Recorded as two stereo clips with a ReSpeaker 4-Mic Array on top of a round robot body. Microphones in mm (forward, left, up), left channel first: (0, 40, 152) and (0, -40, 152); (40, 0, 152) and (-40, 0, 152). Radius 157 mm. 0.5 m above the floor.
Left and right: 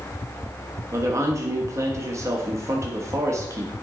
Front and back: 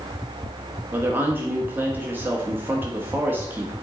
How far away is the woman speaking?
About 1.5 m.